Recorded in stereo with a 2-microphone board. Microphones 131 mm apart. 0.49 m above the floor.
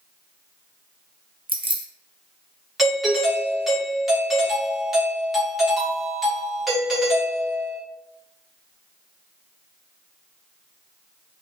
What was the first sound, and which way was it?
Keys jangling, 35° right (ahead or behind).